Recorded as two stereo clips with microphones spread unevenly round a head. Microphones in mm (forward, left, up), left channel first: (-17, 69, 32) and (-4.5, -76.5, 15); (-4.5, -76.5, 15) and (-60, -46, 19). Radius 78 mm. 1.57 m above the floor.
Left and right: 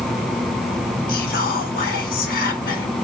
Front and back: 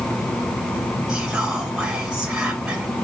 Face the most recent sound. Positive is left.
turn(degrees=70)